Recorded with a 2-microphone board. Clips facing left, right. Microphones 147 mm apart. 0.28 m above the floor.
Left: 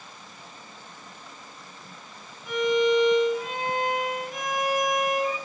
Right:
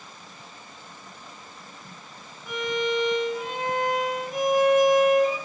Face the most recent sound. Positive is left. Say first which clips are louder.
# left 5 dB
turn(degrees=-25)  # may be behind; listen again after turning